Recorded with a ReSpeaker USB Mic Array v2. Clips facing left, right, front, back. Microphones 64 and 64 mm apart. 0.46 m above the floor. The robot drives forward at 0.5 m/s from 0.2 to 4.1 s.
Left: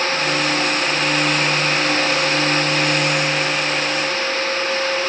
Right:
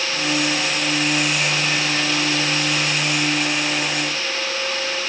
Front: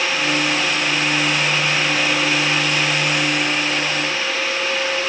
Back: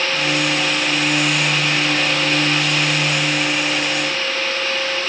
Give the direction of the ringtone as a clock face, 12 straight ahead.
No ringtone in this recording.